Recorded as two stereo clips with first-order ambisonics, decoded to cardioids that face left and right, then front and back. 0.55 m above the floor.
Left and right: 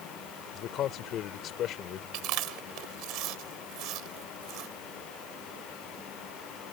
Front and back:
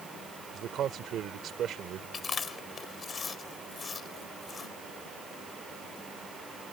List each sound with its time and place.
0.5 s a man speaking: 130° left
2.1 s chewing: 70° right